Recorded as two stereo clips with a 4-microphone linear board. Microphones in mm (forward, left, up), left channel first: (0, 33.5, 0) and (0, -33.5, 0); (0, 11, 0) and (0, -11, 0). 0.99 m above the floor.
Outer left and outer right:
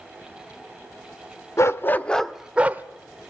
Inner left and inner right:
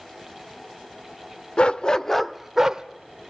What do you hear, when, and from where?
1.6 s a dog barking: 45° left (ahead or behind), 0.8 m; by 2.8 s 25° right (ahead or behind), 1.0 m